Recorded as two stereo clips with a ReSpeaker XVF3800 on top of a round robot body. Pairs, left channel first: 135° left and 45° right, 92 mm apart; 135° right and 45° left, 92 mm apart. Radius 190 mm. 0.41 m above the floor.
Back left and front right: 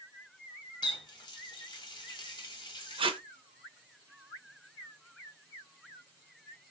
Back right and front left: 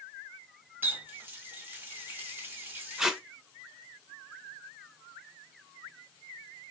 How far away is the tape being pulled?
About 0.7 m.